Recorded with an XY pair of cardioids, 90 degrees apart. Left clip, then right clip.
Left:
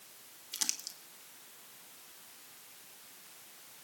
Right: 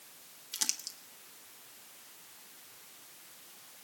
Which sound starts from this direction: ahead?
Crumpling, at 0.5 s.